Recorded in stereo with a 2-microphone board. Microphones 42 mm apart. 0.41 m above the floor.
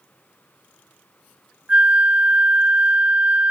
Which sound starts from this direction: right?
A flute, at 1.7 s.